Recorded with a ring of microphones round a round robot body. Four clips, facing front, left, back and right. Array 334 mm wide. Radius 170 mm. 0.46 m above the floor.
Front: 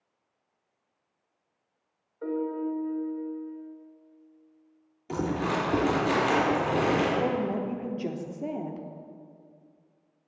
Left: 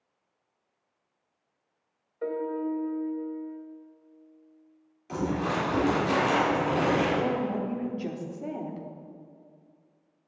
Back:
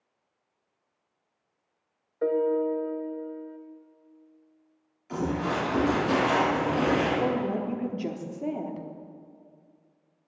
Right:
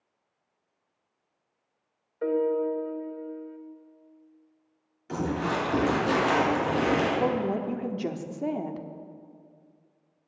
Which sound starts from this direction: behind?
A piano, at 2.2 s.